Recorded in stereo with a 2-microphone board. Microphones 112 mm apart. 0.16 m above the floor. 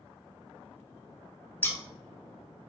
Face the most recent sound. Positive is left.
turn(degrees=15)  # may be behind; listen again after turning